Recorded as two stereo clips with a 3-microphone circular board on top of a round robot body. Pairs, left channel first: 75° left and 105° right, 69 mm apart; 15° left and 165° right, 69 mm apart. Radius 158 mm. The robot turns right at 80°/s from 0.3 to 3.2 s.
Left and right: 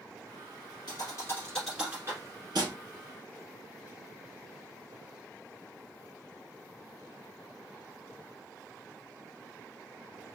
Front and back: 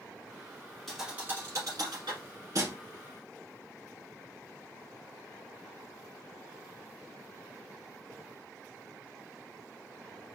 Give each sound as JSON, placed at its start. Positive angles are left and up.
{"t": 0.9, "sound": "a thud", "azimuth_deg": 100, "distance_m": 1.2}